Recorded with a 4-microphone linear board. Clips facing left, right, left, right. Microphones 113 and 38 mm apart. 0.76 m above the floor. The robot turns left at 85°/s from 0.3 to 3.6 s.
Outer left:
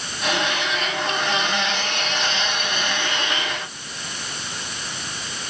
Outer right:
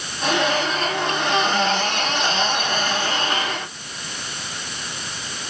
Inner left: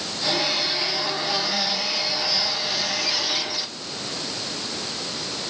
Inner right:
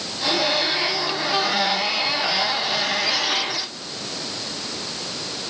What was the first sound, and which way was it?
Only background noise.